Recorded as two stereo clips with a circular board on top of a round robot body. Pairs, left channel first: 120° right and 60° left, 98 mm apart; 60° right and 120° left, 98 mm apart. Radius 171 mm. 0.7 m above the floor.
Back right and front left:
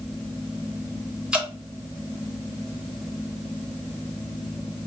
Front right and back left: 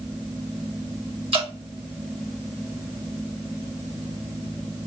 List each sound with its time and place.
1.3 s dripping: 140° left, 1.7 m